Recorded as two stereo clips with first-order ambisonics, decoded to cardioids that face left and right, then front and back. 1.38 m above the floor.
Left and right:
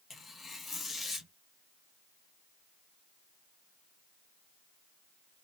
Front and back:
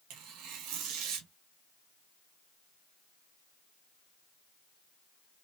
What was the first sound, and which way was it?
Tearing paper, 160° left.